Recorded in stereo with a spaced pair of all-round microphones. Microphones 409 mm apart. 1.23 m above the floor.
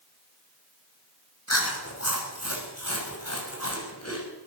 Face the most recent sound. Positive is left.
turn(degrees=35)  # may be behind; listen again after turning